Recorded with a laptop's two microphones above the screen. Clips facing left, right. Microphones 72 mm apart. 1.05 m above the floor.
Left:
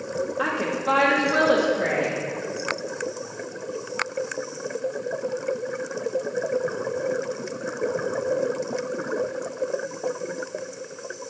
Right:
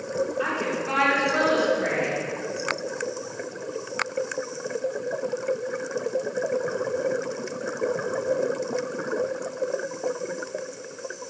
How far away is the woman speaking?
About 2 m.